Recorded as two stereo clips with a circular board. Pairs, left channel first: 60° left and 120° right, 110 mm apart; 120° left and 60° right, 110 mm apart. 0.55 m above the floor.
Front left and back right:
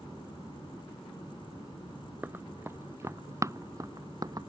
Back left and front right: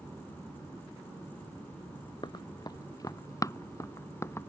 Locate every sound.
2.2 s running footsteps: 170° left; by 4.5 s 175° right